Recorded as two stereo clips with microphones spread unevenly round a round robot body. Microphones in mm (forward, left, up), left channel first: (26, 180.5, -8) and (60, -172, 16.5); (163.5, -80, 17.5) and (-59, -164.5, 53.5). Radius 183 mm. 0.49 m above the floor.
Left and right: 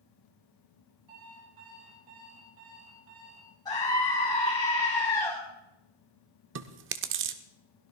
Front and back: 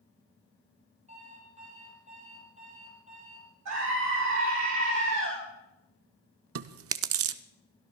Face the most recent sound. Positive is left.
turn(degrees=-140)